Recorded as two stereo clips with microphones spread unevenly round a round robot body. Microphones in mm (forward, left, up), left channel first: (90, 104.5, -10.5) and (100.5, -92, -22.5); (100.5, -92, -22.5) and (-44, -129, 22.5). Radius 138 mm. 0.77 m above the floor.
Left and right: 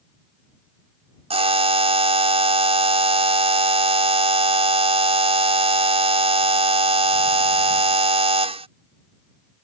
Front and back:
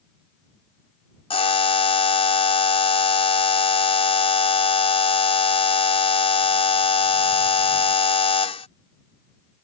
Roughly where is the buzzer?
Ahead right.